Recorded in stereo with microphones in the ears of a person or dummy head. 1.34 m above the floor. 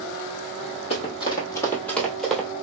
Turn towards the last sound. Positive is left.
turn(degrees=-5)  # may be behind; listen again after turning